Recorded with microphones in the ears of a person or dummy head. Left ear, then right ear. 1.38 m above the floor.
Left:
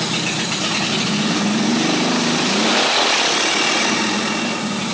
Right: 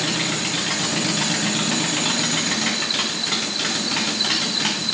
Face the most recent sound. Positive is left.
No sound to turn to.